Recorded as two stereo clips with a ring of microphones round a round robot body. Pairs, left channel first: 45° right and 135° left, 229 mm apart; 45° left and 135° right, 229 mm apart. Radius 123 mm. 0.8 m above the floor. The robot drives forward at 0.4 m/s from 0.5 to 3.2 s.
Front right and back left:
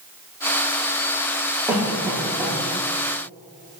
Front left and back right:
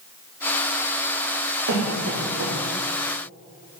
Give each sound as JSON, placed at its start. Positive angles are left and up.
{"t": 1.7, "sound": "a cough", "azimuth_deg": -140, "distance_m": 2.5}